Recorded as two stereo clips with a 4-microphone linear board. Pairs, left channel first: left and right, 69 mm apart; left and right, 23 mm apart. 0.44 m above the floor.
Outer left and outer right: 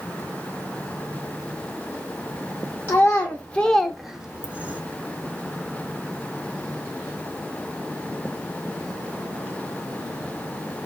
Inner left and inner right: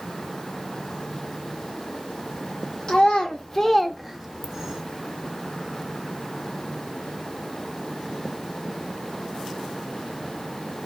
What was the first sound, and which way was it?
A child speaking, 30° left (ahead or behind).